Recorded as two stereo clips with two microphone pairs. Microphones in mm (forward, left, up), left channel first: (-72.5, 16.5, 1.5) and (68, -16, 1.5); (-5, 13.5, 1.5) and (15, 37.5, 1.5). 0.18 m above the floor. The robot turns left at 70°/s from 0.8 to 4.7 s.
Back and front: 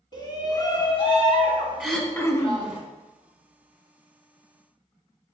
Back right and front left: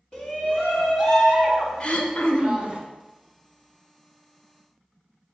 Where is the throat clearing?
100° right, 0.8 m; by 2.7 s 165° right, 0.8 m.